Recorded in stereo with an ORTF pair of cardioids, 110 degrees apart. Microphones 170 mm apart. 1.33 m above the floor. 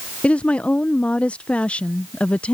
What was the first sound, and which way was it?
A woman speaking, 5° left.